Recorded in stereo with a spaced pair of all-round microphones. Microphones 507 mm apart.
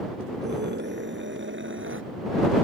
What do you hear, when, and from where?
0.4 s a scream: 20° right (ahead or behind); by 2.0 s 25° right (ahead or behind)